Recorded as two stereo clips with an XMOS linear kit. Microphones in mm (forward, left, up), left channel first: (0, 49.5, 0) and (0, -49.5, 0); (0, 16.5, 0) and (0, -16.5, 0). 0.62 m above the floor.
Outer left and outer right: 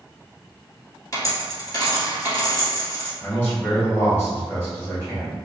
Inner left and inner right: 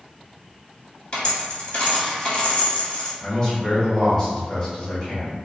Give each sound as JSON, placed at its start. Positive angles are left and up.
{"t": 1.1, "sound": "a dropped coin", "side_deg": 35, "distance_m": 1.5}
{"t": 3.2, "sound": "a man speaking", "side_deg": 20, "distance_m": 1.8}